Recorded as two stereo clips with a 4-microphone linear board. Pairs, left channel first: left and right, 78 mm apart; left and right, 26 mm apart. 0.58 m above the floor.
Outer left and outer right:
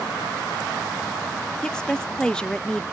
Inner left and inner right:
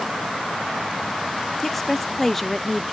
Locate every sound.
1.6 s a woman speaking: 10° left (ahead or behind), 0.6 m